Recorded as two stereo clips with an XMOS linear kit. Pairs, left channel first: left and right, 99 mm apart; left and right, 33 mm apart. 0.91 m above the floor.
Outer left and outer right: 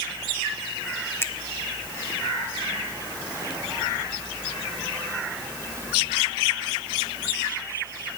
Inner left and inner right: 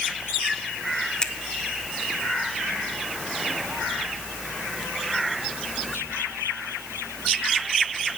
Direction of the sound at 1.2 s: 25° left (ahead or behind).